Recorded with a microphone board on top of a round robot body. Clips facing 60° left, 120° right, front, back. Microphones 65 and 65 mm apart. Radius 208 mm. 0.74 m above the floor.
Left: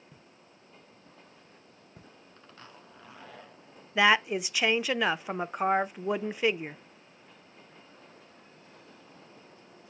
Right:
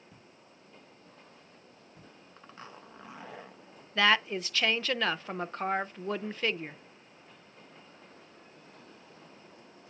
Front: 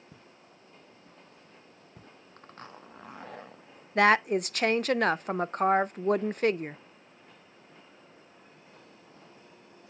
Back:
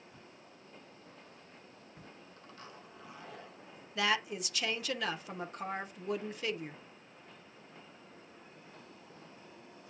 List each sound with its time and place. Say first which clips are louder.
0.1 s footsteps: even, front 1 dB; 20° right, 1.5 m; by 2.1 s 25° left, 1.4 m
2.4 s a zipper: right 4 dB, front 7 dB; 45° right, 0.7 m
4.0 s a woman speaking: left 3 dB, front 11 dB; 10° right, 0.5 m